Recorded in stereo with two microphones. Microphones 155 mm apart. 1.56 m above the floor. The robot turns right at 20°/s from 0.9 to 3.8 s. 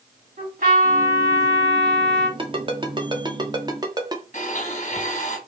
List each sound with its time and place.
0.4 s a trumpet: 60° right (ahead or behind), 1.3 m; by 2.3 s 80° right, 1.3 m
2.4 s a ringtone: 35° right (ahead or behind), 0.6 m; by 4.2 s 25° right (ahead or behind), 0.6 m
4.3 s a blender: 50° left (ahead or behind), 1.0 m